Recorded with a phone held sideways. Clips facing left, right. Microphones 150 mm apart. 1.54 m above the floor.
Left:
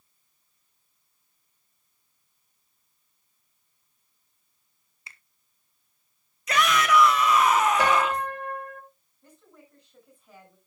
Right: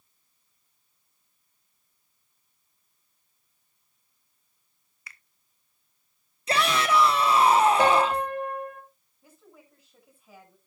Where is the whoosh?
No whoosh in this recording.